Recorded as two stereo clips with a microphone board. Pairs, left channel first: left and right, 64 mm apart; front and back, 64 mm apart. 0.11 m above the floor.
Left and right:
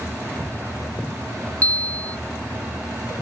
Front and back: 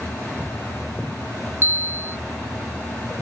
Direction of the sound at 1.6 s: 145° left.